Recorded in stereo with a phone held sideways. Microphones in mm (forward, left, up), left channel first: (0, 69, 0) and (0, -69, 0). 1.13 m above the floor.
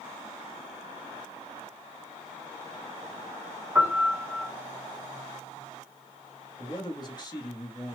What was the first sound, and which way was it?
A piano, 10° right (ahead or behind).